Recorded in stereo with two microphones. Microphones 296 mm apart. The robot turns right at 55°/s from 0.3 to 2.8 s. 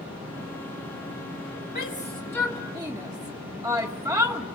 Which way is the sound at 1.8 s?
35° left (ahead or behind).